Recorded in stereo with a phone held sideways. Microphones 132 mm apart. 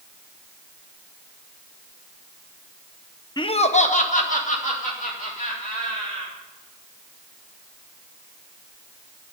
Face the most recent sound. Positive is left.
turn(degrees=80)